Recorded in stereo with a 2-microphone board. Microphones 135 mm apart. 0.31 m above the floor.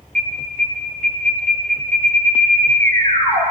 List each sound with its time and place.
0.1 s an alarm: 65° right (ahead or behind), 7 m